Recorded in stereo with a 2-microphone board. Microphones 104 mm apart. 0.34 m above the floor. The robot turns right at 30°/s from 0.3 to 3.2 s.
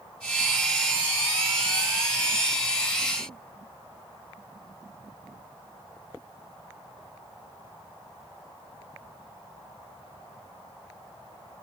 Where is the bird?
I don't hear a bird.